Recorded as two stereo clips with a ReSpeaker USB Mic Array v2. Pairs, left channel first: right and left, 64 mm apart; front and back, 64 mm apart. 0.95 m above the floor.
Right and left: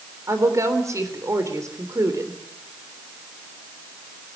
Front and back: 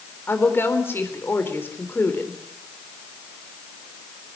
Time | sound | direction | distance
0.3 | a woman speaking | 55° left | 3.5 m